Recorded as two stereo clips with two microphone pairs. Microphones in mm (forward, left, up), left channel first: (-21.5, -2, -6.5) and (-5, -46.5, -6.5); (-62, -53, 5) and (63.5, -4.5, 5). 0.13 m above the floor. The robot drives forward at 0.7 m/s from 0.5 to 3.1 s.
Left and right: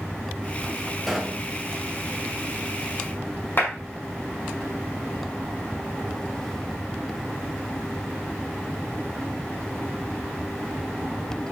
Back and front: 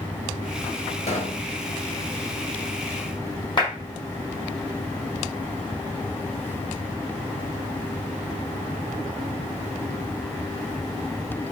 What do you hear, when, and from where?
1.1 s a pop: 160° right, 2 m; by 1.5 s 165° right, 2.5 m
3.6 s a clap: 150° left, 5.5 m